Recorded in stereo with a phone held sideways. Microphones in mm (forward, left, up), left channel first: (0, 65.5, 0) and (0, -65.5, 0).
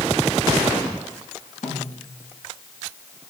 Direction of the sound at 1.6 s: 80° left.